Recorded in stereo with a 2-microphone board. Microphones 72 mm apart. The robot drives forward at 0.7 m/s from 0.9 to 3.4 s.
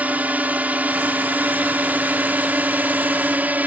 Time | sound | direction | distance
0.0 | a drone | 20° right (ahead or behind) | ?